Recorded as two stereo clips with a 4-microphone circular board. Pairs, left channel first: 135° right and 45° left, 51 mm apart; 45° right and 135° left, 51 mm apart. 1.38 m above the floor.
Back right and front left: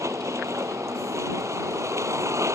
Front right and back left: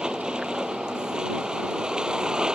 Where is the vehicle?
60° left.